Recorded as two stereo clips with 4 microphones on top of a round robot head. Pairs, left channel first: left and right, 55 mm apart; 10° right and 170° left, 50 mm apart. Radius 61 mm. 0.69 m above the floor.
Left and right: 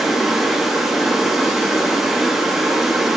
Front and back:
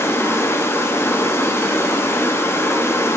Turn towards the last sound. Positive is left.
turn(degrees=0)